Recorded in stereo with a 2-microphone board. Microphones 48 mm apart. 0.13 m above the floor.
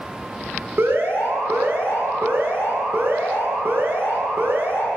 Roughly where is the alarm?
Right.